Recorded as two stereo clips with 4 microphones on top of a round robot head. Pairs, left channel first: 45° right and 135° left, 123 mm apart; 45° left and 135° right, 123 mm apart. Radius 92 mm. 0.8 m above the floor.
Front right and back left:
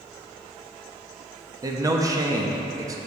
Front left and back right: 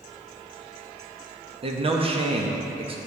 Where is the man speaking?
165° right, 1.0 m.